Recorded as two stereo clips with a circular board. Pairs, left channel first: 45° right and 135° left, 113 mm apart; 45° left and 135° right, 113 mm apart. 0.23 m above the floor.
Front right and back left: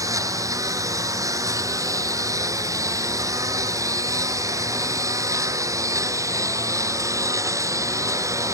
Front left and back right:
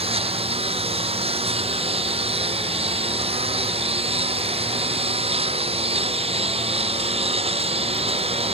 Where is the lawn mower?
165° right; by 8.6 s 160° right.